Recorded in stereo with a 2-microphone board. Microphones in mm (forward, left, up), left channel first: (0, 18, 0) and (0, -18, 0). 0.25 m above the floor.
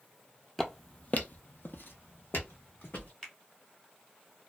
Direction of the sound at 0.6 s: 10° left (ahead or behind).